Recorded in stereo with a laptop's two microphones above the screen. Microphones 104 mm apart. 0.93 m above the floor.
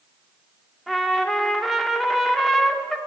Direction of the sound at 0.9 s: Centre (ahead or behind).